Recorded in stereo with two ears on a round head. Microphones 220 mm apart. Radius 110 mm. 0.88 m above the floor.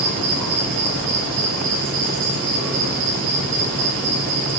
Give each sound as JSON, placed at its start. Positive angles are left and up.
{"t": 0.0, "sound": "an insect", "side_deg": -50, "distance_m": 3.5}